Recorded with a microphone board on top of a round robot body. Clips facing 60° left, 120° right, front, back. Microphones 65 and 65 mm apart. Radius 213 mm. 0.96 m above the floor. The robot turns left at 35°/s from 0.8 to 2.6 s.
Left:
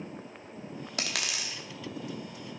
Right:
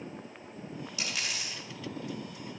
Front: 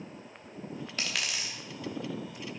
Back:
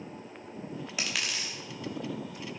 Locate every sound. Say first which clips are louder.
1.0 s a dropped coin: left 3 dB, even; 100° left, 1.1 m; by 1.6 s 75° left, 1.1 m